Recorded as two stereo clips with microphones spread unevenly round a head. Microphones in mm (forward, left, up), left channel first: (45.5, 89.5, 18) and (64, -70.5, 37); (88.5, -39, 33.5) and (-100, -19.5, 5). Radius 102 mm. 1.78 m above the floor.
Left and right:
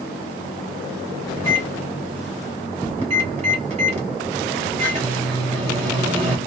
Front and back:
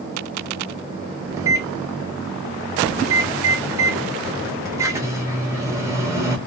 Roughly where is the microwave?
Right.